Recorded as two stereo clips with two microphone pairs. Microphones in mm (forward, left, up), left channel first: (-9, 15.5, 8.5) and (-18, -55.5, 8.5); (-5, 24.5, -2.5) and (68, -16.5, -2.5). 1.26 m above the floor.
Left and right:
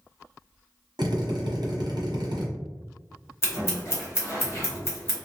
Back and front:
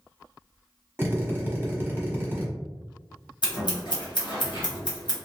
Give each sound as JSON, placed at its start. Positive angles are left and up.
{"t": 1.0, "sound": "a drill", "azimuth_deg": -95, "distance_m": 0.8}
{"t": 3.4, "sound": "scissors", "azimuth_deg": 135, "distance_m": 1.1}